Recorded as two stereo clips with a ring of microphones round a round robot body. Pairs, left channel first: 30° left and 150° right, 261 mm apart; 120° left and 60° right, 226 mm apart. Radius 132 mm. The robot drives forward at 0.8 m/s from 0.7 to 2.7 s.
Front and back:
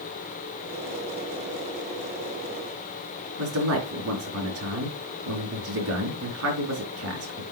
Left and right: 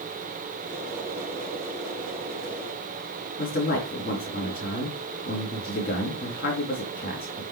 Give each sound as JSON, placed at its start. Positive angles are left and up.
{"t": 3.4, "sound": "a man speaking", "azimuth_deg": 175, "distance_m": 4.0}